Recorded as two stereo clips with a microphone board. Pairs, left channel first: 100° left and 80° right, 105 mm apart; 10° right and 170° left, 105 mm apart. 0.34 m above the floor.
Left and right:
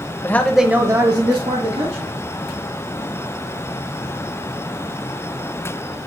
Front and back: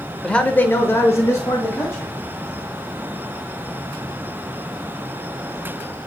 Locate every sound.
0.2 s a man speaking: 65° left, 1.1 m; by 2.1 s 75° right, 2.5 m